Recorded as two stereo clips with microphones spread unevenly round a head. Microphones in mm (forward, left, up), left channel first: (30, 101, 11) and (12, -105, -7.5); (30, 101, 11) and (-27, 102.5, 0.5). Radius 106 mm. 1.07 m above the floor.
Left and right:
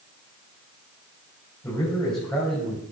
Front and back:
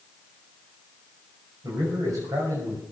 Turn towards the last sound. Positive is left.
turn(degrees=175)